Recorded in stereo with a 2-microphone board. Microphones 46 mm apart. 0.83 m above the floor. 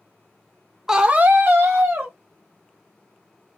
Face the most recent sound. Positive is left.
turn(degrees=-45)  # may be behind; listen again after turning